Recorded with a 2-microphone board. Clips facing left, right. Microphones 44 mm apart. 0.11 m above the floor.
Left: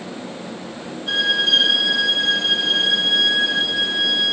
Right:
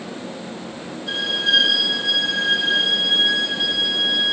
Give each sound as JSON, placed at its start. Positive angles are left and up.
{"t": 1.1, "sound": "a violin", "side_deg": 35, "distance_m": 2.5}